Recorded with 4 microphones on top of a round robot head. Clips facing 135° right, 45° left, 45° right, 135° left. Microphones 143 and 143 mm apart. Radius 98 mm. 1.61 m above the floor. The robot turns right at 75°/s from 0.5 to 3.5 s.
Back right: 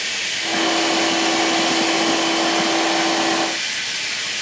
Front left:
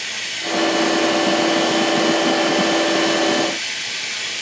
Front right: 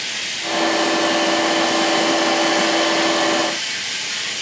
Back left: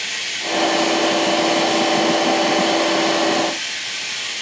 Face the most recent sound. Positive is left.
turn(degrees=25)